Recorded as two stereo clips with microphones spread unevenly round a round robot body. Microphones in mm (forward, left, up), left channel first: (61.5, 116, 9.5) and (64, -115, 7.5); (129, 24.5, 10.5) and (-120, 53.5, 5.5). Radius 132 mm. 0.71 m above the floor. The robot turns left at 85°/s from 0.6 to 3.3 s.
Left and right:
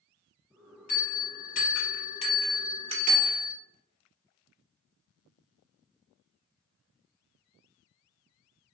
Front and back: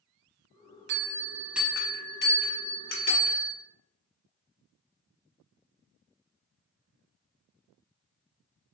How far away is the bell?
About 0.8 m.